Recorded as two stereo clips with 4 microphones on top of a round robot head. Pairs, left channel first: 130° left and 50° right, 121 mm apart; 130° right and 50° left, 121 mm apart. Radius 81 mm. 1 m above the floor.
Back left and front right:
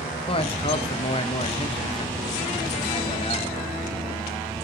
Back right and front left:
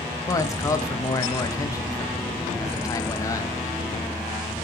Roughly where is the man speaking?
Behind.